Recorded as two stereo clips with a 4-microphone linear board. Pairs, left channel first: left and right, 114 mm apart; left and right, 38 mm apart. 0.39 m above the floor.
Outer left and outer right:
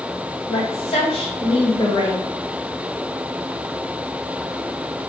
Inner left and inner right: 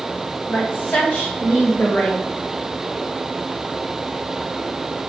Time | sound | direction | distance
0.5 | a woman speaking | 60° left (ahead or behind) | 2.5 m